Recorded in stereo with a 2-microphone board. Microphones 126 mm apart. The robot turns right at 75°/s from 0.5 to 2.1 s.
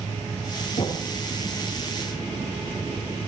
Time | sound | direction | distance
0.8 | knocking | 70° left (ahead or behind) | 8 m